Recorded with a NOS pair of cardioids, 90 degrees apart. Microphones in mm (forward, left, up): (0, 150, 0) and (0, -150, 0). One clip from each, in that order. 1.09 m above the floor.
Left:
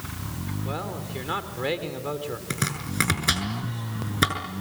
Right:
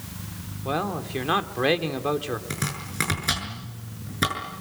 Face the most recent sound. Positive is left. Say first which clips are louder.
# left 2 dB
turn(degrees=20)